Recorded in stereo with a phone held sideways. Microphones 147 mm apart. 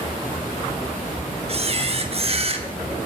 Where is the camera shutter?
45° right (ahead or behind), 1.1 m.